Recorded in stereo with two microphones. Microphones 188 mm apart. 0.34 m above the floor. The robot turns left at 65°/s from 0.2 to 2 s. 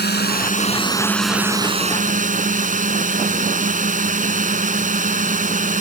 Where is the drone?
70° left; by 5.8 s 50° right.